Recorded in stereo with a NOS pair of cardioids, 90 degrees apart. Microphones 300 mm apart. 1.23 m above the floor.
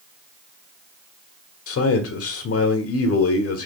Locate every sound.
1.7 s a man speaking: 50° left, 1.3 m